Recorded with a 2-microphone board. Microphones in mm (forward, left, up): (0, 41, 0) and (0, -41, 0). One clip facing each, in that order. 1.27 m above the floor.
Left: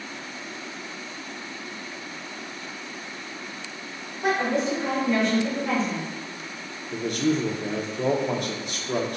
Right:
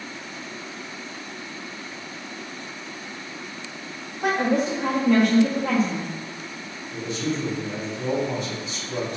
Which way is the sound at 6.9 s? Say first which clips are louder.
Left 4 dB; 55° left (ahead or behind).